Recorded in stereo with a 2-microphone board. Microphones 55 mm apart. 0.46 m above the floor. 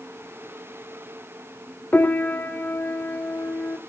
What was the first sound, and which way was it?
A piano, 30° left (ahead or behind).